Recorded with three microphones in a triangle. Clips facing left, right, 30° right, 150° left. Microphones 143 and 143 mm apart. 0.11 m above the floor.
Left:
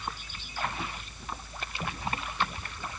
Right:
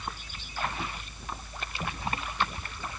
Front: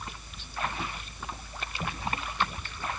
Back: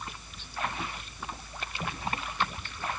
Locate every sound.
Only background noise.